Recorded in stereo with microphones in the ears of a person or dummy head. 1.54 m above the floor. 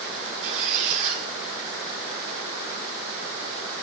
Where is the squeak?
30° right (ahead or behind), 0.9 m.